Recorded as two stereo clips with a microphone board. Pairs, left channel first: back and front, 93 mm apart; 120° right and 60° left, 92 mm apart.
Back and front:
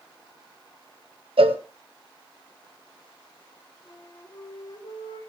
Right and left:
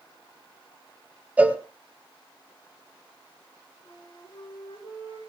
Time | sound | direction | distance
1.4 | a cowbell | 15° right | 1.2 m
3.9 | a flute | 145° right | 6 m